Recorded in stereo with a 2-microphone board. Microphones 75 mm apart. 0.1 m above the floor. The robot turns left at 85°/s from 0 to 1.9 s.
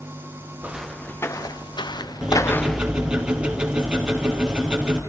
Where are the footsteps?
25° right (ahead or behind), 2.5 m; by 2.9 s 15° right (ahead or behind), 0.7 m.